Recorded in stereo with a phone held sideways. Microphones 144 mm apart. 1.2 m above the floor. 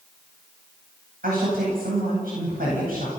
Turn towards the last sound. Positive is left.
turn(degrees=-85)